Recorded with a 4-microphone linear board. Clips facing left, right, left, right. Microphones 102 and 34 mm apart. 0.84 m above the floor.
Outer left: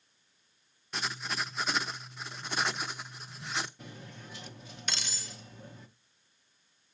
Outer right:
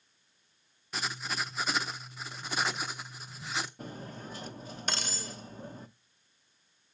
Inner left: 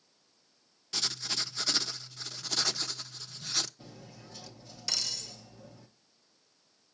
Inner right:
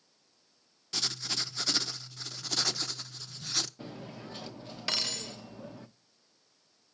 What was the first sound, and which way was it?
Writing, centre (ahead or behind).